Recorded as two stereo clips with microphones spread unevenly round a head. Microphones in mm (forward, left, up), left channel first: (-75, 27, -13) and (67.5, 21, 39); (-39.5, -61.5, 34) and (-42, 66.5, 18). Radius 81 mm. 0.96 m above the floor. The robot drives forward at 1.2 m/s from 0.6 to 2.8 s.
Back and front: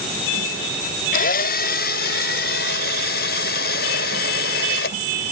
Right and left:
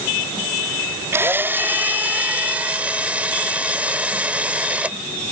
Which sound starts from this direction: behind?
A drill, at 1.1 s.